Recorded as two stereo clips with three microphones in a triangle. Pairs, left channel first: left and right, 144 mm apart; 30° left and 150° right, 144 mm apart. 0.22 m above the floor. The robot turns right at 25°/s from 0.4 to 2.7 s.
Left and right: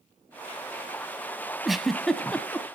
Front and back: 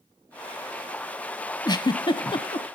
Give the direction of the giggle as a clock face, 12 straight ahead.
12 o'clock.